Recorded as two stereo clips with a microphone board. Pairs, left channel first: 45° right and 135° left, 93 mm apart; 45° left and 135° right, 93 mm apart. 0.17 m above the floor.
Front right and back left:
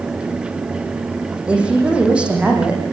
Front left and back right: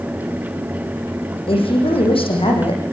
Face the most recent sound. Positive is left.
turn(degrees=60)